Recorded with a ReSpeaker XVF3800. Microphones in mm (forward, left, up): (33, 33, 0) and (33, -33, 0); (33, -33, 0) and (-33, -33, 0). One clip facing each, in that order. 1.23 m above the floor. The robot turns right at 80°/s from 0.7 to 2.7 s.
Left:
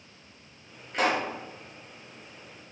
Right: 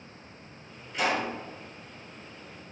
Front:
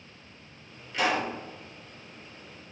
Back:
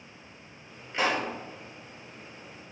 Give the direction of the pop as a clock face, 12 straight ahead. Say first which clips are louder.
Left 2 dB, front 1 dB; 8 o'clock.